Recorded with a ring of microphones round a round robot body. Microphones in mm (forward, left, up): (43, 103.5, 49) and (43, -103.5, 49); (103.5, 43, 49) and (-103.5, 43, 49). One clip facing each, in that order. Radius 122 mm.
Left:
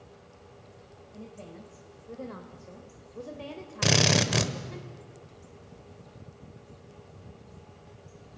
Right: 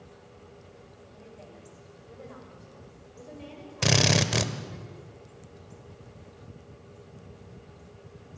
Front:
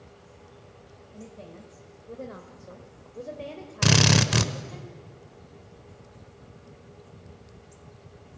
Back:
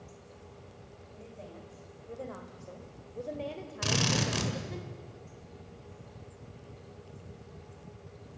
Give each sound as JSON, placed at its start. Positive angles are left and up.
{"t": 1.1, "sound": "a woman speaking", "azimuth_deg": 50, "distance_m": 2.0}
{"t": 3.8, "sound": "a drill", "azimuth_deg": 0, "distance_m": 1.3}